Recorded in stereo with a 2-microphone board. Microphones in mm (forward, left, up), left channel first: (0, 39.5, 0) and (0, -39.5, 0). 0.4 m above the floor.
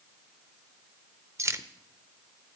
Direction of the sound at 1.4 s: 40° right (ahead or behind).